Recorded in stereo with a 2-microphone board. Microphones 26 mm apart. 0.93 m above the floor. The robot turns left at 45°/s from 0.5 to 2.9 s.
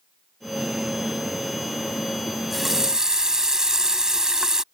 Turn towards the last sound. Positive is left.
turn(degrees=-30)  # may be behind; listen again after turning